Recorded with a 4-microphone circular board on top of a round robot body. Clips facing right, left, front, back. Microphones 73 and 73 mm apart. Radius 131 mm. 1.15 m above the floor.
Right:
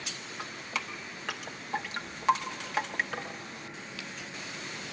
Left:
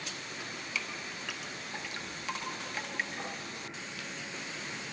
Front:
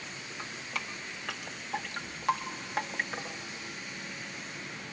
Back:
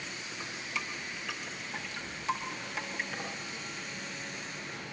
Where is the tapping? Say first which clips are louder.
Right 3 dB, front 1 dB; 55° right, 3 m.